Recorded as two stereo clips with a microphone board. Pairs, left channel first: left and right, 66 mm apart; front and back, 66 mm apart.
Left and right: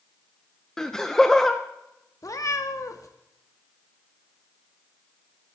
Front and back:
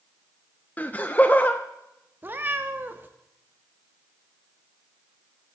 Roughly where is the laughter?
Ahead.